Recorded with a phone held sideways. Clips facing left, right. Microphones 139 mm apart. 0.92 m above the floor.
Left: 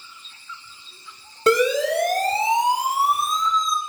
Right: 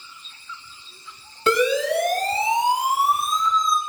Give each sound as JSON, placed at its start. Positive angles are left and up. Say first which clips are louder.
{"t": 1.5, "sound": "a siren", "louder": "left 1 dB", "side_deg": 40, "distance_m": 9.0}